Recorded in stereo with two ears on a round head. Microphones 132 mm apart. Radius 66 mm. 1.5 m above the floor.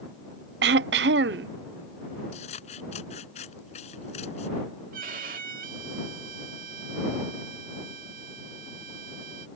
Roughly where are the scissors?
Left.